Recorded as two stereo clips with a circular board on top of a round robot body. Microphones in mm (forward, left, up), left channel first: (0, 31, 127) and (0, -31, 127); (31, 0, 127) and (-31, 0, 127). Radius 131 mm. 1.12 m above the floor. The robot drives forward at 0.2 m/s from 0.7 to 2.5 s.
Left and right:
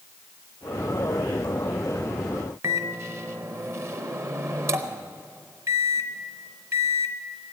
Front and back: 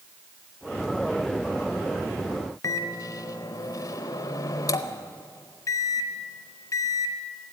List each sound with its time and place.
2.6 s a microwave: 40° right, 0.6 m